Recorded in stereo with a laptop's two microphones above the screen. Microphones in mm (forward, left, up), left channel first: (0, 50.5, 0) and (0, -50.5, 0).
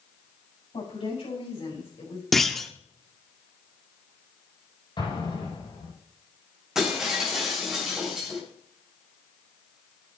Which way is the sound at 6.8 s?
5° right (ahead or behind).